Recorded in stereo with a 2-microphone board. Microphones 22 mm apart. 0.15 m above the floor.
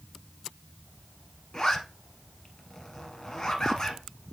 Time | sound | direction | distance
1.5 | a zipper | 30° left (ahead or behind) | 1.9 m